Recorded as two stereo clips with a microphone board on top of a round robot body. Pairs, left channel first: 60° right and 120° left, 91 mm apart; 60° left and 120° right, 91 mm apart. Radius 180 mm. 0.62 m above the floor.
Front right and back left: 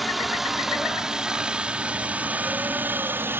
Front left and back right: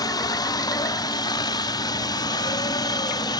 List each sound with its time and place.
0.0 s a helicopter: 30° left; by 3.4 s 65° left